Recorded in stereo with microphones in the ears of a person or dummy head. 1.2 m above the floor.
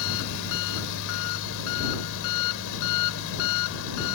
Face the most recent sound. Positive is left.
turn(degrees=75)  # may be behind; listen again after turning